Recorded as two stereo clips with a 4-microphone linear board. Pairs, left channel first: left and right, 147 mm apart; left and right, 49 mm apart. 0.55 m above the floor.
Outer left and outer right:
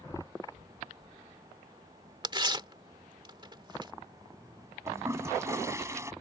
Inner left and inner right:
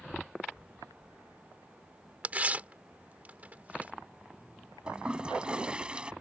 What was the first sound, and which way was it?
Tearing paper, 30° right (ahead or behind).